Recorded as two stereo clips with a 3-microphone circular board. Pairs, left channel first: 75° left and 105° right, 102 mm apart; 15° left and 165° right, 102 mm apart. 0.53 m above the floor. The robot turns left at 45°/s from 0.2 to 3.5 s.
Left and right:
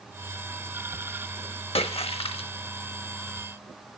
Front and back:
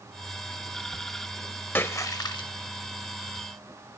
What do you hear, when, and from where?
1.8 s a splash: 85° left, 0.5 m; by 2.5 s 50° left, 0.5 m